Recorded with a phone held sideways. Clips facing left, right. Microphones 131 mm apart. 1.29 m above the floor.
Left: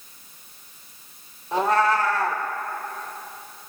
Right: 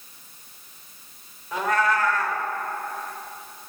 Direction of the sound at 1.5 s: 30° left (ahead or behind).